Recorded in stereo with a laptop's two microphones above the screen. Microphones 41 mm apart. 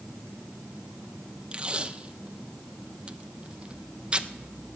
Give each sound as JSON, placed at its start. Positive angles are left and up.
{"t": 1.5, "sound": "tape being pulled", "side_deg": -30, "distance_m": 0.5}